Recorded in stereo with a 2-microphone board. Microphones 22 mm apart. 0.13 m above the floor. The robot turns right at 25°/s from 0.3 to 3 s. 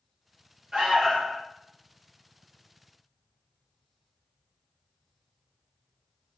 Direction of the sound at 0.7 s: 25° right (ahead or behind).